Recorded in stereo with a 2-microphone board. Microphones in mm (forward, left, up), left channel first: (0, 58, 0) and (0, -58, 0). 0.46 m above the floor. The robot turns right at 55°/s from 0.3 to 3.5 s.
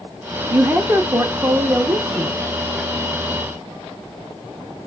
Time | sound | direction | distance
0.5 | a woman speaking | 15° right (ahead or behind) | 0.7 m